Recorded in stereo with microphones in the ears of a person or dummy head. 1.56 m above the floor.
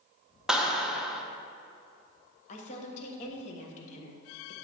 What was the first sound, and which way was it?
A clap, 5° right (ahead or behind).